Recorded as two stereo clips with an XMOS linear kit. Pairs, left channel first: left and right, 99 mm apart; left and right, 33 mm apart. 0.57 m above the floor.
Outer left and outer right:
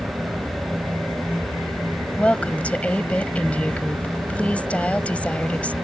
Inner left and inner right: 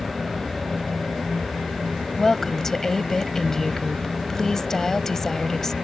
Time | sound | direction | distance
0.0 | an aircraft | 15° right (ahead or behind) | ?
2.2 | a woman speaking | 15° left (ahead or behind) | ?